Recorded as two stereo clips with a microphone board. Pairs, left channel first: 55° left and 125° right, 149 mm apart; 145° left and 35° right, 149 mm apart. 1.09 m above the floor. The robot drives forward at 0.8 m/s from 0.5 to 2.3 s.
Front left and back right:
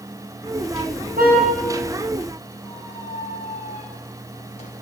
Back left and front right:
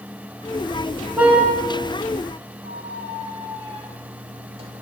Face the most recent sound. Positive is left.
turn(degrees=15)